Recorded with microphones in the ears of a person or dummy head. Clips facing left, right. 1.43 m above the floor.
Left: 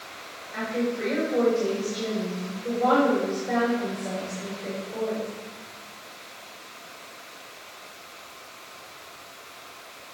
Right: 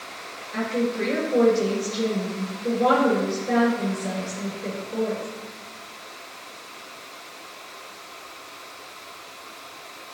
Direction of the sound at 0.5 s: 50° right (ahead or behind).